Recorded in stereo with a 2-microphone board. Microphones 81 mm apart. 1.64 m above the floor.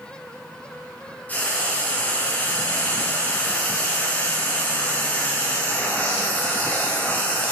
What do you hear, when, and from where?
1.3 s frying: 20° left (ahead or behind), 0.9 m